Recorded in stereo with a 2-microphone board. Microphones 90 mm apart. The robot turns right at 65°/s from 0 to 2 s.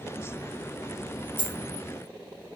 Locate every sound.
1.4 s a dropped coin: 25° left (ahead or behind), 2 m; by 1.6 s 10° left (ahead or behind), 2 m